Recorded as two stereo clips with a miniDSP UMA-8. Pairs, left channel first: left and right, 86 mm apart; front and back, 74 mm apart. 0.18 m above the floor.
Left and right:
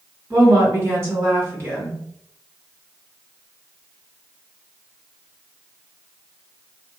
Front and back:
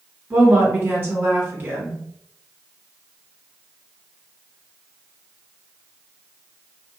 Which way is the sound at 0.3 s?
130° right.